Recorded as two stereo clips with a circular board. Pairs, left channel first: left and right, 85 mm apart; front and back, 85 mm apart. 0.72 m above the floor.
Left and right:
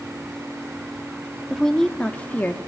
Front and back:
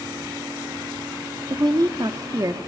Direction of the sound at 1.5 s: 175° left.